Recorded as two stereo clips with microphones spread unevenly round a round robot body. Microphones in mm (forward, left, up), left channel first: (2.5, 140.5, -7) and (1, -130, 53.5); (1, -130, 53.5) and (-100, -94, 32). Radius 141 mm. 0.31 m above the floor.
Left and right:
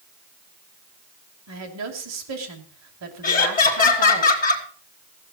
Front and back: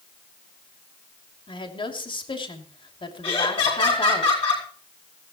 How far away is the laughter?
About 3 m.